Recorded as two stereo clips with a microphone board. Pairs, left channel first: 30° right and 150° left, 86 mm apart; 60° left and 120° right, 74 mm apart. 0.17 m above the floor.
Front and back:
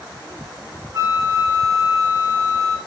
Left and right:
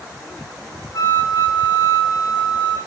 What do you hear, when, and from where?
0.9 s a flute: 100° left, 7.5 m